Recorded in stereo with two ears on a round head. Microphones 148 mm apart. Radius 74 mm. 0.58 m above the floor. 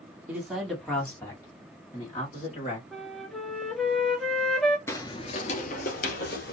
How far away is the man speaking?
About 1.4 m.